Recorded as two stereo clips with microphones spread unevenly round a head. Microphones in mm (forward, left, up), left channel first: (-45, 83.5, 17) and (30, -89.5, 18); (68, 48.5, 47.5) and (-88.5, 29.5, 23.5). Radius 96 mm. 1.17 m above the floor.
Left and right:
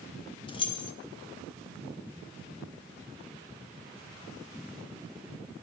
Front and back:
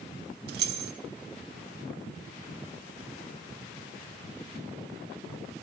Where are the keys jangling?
175° left, 0.9 m.